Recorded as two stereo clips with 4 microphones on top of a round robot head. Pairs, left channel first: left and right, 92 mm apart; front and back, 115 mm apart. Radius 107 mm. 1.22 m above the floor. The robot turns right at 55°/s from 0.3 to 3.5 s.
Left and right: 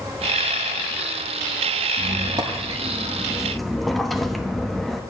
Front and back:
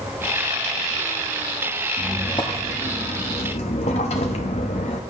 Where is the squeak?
85° right, 0.6 m; by 5.0 s straight ahead, 0.6 m.